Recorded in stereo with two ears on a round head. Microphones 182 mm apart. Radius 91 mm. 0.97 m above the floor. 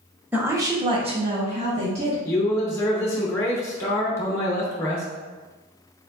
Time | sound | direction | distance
0.3 | a woman speaking | 10° right (ahead or behind) | 1.0 m
2.2 | a man speaking | 15° left (ahead or behind) | 0.7 m